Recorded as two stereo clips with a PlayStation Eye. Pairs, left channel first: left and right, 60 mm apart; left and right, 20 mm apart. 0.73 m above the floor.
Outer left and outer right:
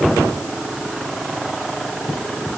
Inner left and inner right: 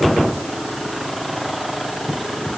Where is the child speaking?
No child speaking in this recording.